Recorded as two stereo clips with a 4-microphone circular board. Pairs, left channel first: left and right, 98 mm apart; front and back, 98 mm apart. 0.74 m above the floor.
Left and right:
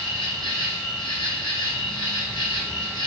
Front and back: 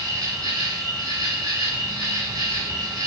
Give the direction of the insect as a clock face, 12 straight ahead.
8 o'clock.